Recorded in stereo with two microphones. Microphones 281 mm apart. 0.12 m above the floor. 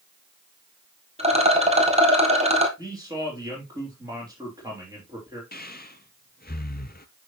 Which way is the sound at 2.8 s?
15° right (ahead or behind).